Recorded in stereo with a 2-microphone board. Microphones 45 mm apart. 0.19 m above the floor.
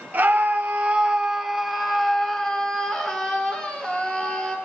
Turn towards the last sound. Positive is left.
turn(degrees=20)  # may be behind; listen again after turning